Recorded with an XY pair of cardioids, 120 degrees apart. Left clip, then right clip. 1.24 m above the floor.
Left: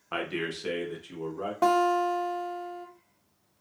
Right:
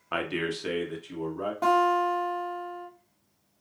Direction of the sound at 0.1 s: 20° right.